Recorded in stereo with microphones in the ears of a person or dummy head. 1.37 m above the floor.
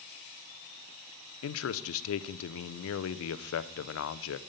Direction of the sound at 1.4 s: 70° left (ahead or behind).